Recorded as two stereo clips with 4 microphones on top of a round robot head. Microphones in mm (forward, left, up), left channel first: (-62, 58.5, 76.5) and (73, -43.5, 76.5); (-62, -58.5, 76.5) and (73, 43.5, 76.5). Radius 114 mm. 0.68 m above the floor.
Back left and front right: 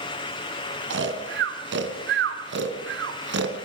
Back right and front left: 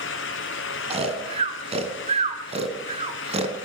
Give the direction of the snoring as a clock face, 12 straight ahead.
1 o'clock.